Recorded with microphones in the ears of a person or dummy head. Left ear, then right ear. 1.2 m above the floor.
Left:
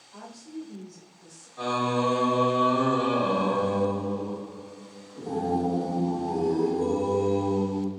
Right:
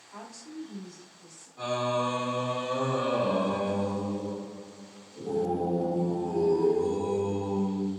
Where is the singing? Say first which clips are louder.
Left 2 dB; 20° left (ahead or behind), 1.0 m.